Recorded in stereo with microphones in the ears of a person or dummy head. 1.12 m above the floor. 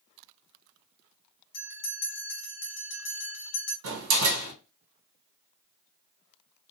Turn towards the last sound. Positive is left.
turn(degrees=-75)  # may be behind; listen again after turning